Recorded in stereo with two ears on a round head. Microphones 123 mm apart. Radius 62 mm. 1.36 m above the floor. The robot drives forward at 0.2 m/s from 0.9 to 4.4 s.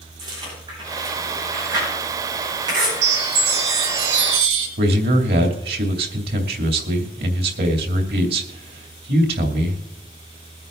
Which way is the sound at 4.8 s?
75° right (ahead or behind).